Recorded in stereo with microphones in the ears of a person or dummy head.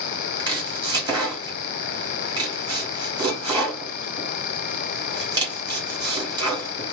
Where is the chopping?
20° right (ahead or behind), 1.5 m.